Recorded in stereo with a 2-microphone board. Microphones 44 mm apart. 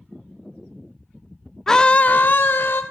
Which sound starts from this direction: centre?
A scream, at 1.7 s.